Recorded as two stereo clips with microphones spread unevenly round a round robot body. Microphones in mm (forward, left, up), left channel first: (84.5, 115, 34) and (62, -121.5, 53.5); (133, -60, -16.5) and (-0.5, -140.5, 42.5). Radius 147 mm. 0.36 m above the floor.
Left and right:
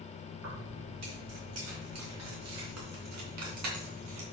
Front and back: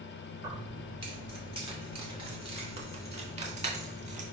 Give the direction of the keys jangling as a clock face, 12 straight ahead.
3 o'clock.